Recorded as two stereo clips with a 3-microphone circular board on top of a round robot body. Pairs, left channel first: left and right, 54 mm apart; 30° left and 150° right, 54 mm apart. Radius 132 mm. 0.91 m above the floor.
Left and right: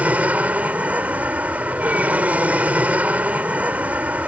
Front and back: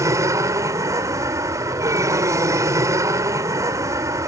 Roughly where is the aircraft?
Behind right.